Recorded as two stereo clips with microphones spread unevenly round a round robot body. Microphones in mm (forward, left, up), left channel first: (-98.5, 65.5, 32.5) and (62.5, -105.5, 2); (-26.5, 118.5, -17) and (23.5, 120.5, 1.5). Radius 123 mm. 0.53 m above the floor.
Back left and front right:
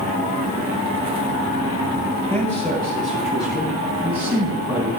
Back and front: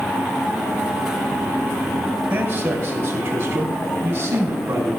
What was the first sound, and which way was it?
A man speaking, 50° left.